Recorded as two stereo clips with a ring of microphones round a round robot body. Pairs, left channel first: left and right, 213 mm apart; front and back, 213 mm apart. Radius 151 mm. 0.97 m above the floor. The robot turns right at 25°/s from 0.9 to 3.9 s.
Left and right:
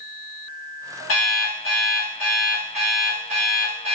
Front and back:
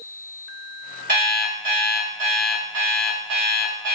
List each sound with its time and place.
1.1 s an alarm clock: 130° left, 1.6 m; by 4.0 s 160° right, 1.6 m